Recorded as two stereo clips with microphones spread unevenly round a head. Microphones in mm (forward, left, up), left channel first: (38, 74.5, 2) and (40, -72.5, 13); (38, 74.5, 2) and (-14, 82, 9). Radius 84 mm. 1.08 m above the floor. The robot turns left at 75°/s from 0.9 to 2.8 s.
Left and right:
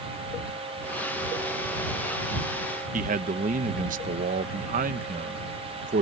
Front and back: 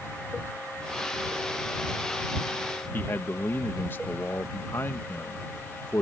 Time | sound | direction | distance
2.9 | a man speaking | 65° right | ?